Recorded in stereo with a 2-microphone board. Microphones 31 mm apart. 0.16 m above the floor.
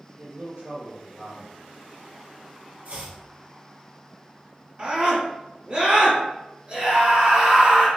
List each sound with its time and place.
0.2 s a man speaking: 35° right (ahead or behind), 1.7 m
2.9 s chopping: 65° right (ahead or behind), 1.4 m
4.8 s a scream: 40° right (ahead or behind), 1.7 m